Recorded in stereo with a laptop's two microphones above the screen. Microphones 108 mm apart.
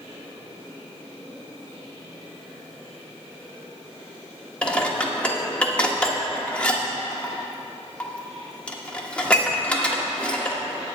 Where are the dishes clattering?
10° left (ahead or behind), 1.2 m.